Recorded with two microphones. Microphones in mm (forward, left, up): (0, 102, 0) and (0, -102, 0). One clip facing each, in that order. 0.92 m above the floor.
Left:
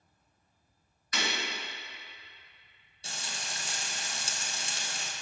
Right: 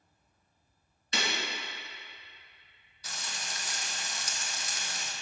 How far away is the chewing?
No chewing in this recording.